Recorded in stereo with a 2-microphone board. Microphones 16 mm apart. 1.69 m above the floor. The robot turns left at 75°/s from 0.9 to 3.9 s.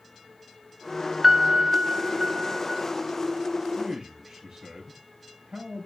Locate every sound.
1.2 s a piano: 20° right, 0.8 m; by 2.8 s 140° right, 0.8 m
3.8 s a man speaking: 65° right (ahead or behind), 4 m; by 5.9 s 55° right (ahead or behind), 4 m